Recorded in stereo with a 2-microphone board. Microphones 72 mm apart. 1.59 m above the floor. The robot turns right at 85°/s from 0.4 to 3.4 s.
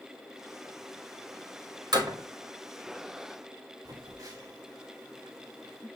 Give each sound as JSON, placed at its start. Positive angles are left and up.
{"t": 1.9, "sound": "a door slam", "side_deg": -70, "distance_m": 2.0}
{"t": 3.9, "sound": "a phone buzzing", "side_deg": -70, "distance_m": 4.0}